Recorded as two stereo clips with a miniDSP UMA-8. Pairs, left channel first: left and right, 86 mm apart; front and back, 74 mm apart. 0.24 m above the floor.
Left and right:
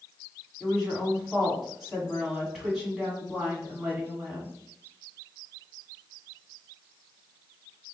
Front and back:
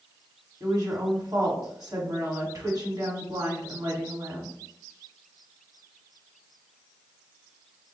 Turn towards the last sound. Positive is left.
turn(degrees=-175)